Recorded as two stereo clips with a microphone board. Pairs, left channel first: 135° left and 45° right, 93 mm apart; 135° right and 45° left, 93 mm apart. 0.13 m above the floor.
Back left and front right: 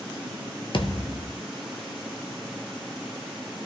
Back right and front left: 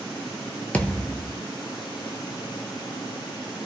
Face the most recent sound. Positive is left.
turn(degrees=150)